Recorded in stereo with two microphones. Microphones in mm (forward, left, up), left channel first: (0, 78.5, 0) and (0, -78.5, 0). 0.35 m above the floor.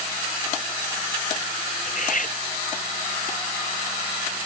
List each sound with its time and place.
1.9 s cutlery clinking: 55° left (ahead or behind)